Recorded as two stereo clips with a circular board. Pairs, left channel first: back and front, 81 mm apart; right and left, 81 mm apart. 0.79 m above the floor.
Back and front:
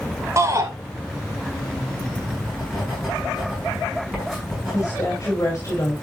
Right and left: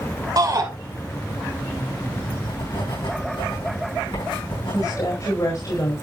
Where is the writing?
90° right, 6.5 m.